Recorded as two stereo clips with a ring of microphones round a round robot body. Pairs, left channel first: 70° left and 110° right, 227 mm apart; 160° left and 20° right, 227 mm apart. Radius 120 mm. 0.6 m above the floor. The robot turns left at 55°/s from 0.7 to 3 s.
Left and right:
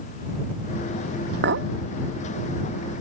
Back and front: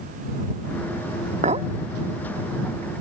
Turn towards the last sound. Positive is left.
turn(degrees=-165)